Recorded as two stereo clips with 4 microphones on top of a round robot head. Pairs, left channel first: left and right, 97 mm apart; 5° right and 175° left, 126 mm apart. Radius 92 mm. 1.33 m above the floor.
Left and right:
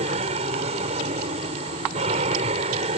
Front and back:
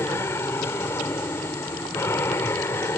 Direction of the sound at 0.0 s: 80° right.